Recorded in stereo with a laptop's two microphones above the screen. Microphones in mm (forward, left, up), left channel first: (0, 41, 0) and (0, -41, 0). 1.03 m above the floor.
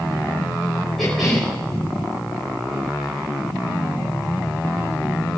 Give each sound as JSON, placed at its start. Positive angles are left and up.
{"t": 1.0, "sound": "a cough", "side_deg": 0, "distance_m": 4.5}